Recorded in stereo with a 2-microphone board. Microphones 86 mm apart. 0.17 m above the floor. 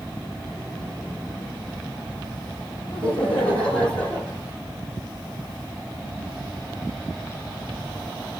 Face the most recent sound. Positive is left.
turn(degrees=10)  # may be behind; listen again after turning